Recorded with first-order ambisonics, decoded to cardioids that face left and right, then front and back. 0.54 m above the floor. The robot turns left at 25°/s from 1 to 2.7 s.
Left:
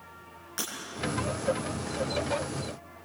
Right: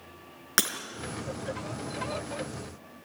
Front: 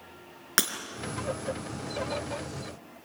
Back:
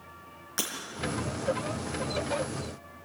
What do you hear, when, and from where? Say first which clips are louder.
0.6 s breaking glass: right 9 dB, front 7 dB; 50° right, 3.5 m